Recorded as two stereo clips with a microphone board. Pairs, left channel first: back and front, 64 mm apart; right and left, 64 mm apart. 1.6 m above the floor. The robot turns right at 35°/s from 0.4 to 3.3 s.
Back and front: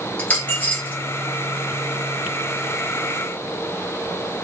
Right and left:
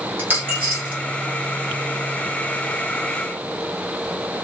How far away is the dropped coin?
About 1.4 m.